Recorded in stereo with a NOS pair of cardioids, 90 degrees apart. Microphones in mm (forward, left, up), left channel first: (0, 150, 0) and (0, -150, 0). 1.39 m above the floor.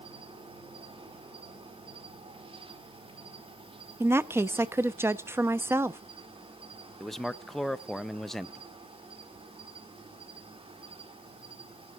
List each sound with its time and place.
0.0 s an insect: 15° right, 2.5 m
4.0 s a woman speaking: 10° right, 0.9 m
7.0 s a man speaking: straight ahead, 0.7 m